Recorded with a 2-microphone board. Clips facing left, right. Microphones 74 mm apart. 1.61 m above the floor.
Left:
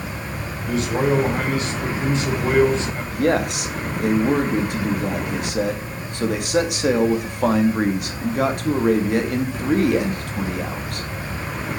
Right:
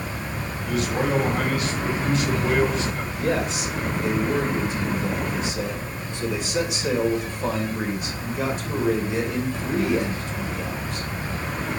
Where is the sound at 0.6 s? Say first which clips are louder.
Left 4 dB; 30° left (ahead or behind), 5.5 m.